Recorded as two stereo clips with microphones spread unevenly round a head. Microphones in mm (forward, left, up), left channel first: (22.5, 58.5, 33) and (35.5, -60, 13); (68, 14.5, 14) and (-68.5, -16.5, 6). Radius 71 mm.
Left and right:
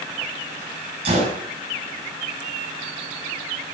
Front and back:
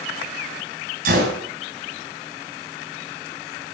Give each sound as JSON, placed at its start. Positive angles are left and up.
{"t": 1.1, "sound": "a gunshot", "azimuth_deg": -135, "distance_m": 6.0}